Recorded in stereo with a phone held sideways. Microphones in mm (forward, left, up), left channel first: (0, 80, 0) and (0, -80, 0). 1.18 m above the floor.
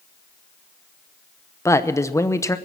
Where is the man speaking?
20° left (ahead or behind), 0.8 m.